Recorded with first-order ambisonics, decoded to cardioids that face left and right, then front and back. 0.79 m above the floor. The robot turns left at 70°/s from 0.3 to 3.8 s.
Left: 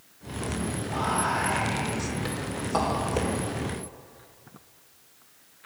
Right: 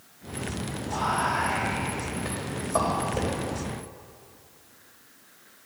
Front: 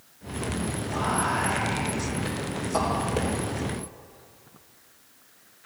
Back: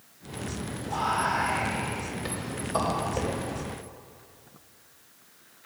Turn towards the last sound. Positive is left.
turn(degrees=0)